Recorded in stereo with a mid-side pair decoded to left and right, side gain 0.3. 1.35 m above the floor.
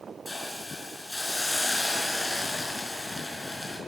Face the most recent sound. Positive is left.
turn(degrees=30)